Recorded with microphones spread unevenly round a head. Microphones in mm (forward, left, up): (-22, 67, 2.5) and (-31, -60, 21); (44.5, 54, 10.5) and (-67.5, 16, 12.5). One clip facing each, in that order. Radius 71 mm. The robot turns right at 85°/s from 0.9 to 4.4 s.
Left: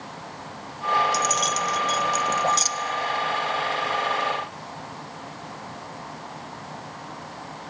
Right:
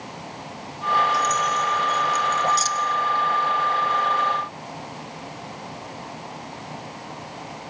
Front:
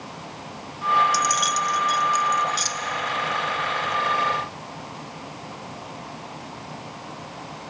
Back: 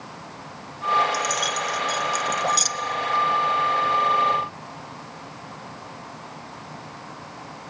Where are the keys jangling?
35° left, 0.9 m; by 2.7 s 165° left, 0.9 m.